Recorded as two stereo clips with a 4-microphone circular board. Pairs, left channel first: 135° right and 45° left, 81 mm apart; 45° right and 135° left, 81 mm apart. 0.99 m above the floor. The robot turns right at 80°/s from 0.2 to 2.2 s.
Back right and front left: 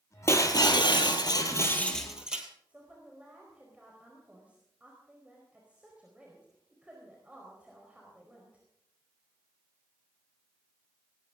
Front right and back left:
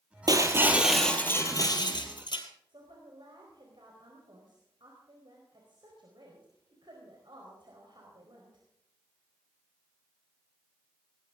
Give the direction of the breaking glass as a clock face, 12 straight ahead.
6 o'clock.